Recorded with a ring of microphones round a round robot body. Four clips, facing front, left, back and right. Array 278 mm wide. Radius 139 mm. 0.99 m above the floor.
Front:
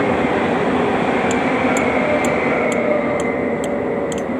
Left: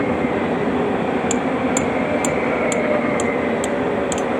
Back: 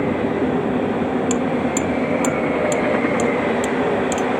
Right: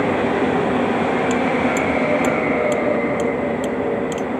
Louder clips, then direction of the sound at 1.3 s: Right 1 dB, front 3 dB; 110° left.